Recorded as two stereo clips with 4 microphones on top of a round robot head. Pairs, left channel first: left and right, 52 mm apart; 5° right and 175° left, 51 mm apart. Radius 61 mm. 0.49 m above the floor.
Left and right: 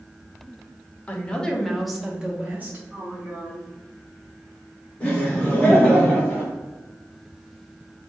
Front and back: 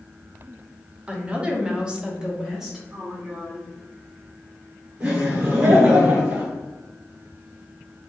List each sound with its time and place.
1.1 s a woman speaking: 130° left, 0.9 m; by 2.8 s 105° right, 0.9 m
2.9 s a woman speaking: 155° right, 1.7 m
5.0 s laughter: 140° left, 1.5 m